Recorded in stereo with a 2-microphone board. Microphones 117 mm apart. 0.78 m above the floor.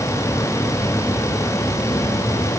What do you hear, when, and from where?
Only background noise.